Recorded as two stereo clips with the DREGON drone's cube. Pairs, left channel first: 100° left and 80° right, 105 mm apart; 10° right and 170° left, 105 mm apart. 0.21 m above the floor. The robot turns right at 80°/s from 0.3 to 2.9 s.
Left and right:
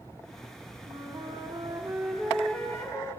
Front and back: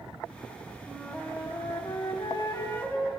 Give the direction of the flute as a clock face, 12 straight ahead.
4 o'clock.